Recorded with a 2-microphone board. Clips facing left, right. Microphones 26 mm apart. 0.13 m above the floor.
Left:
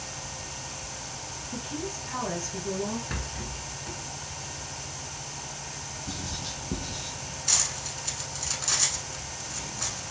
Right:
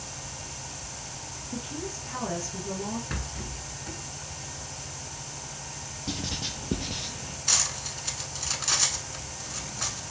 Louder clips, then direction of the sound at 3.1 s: Left 1 dB; 5° right (ahead or behind).